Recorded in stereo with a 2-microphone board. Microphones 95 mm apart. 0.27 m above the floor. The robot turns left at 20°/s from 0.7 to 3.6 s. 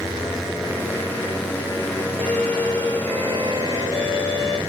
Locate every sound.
2.2 s a violin: 5° left (ahead or behind), 2.5 m; by 4.6 s 35° left (ahead or behind), 2.5 m